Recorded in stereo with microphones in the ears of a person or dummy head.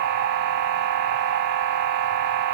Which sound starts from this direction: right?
A machine running, at 0.0 s.